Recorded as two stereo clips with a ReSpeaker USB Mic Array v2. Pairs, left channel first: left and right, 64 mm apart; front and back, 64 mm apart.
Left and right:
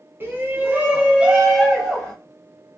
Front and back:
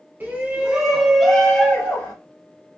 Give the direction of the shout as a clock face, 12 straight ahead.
4 o'clock.